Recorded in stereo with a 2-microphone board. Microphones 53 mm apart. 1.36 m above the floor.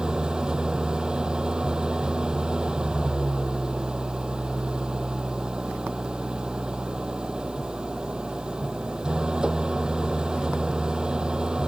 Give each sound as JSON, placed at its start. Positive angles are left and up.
{"t": 0.0, "sound": "an engine running", "side_deg": -15}